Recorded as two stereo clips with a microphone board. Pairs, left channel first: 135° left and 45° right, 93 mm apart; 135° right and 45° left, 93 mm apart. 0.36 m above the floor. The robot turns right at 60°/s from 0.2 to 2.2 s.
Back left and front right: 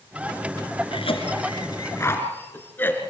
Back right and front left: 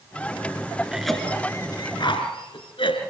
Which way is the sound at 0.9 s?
125° left.